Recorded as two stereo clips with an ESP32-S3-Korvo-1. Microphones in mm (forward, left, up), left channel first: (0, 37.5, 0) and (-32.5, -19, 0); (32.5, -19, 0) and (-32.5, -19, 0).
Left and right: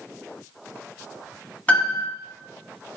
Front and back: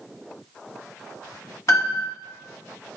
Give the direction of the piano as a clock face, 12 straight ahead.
12 o'clock.